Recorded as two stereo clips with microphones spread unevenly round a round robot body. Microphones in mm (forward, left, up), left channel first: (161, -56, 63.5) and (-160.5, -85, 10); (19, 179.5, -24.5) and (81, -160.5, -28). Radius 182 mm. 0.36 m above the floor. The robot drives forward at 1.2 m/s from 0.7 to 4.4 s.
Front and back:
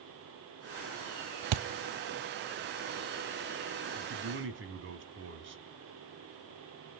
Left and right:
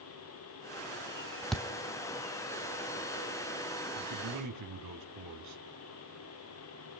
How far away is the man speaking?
About 3 m.